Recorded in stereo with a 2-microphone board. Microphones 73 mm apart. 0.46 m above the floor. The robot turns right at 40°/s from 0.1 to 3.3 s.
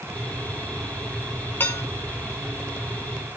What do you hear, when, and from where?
1.6 s dishes clattering: 30° left (ahead or behind), 0.8 m; by 1.8 s 35° left (ahead or behind), 0.8 m